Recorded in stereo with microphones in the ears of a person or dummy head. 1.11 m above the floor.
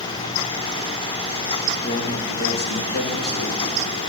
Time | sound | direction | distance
1.8 | a man speaking | 35° left (ahead or behind) | 1.4 m